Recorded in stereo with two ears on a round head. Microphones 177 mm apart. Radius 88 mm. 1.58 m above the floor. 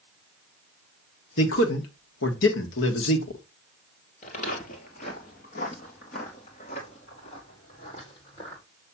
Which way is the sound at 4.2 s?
45° left (ahead or behind).